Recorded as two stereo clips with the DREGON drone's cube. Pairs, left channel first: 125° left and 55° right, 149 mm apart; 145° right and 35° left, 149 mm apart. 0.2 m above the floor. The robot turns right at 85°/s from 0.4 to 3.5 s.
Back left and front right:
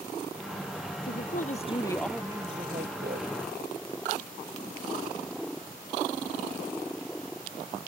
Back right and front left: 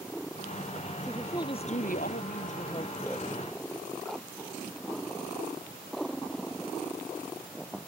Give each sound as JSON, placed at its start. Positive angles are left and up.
{"t": 1.0, "sound": "a woman speaking", "azimuth_deg": 120}